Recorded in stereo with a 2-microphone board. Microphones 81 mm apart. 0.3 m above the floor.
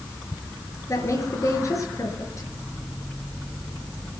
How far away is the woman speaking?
About 6 m.